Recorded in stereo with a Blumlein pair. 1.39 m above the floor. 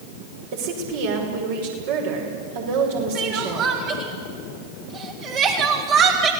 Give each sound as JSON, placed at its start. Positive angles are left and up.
{"t": 0.5, "sound": "a woman speaking", "azimuth_deg": -50, "distance_m": 6.0}
{"t": 3.1, "sound": "crying", "azimuth_deg": -35, "distance_m": 3.5}